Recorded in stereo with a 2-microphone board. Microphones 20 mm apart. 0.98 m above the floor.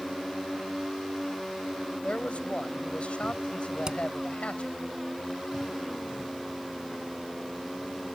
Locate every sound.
2.0 s a man speaking: 75° left (ahead or behind)
3.9 s hammering: 40° right (ahead or behind)